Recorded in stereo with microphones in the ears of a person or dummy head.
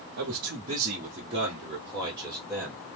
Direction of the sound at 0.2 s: 50° right (ahead or behind).